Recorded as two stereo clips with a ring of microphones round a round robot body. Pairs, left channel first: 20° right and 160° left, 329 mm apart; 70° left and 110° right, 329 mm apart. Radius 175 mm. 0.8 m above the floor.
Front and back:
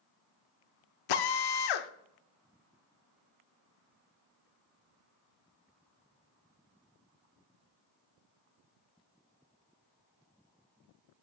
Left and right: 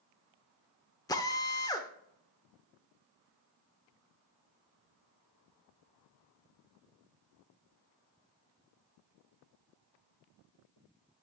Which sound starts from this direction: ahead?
A drill, at 1.1 s.